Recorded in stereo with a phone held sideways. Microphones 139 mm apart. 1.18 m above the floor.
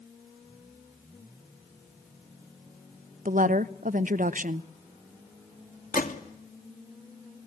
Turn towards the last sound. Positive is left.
turn(degrees=80)